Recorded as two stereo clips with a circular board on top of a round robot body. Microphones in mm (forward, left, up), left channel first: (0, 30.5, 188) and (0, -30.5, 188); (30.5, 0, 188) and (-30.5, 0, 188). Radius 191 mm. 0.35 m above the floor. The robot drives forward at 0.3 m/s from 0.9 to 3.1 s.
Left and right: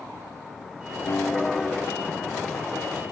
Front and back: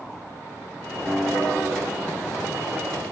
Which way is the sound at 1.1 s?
65° left.